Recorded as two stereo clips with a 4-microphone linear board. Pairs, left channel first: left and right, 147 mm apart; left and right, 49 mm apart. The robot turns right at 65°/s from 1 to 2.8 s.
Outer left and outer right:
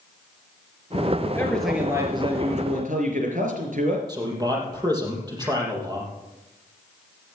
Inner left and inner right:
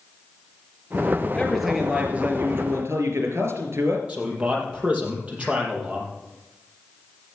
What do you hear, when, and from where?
1.3 s a man speaking: 160° left, 4 m; by 4.0 s 105° right, 4 m
4.1 s a man speaking: 25° right (ahead or behind), 5 m